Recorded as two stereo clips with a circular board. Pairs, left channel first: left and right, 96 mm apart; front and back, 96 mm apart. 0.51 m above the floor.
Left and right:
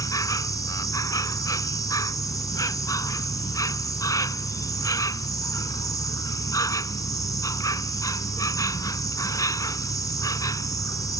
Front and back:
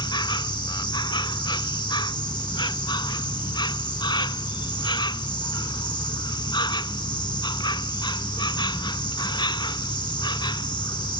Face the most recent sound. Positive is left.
turn(degrees=35)